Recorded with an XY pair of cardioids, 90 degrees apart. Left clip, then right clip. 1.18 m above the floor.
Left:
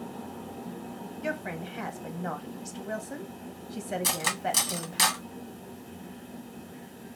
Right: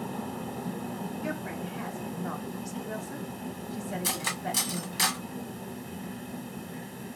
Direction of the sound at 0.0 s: 65° right.